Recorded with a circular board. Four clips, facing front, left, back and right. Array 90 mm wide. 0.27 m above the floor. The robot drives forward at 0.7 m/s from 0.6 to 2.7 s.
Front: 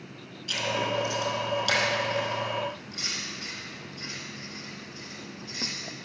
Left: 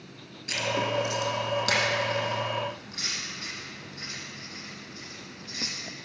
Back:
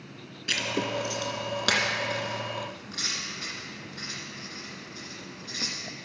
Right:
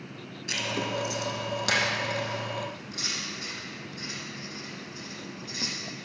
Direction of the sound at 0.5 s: Straight behind.